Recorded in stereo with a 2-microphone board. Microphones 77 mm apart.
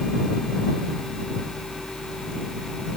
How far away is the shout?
I don't hear a shout.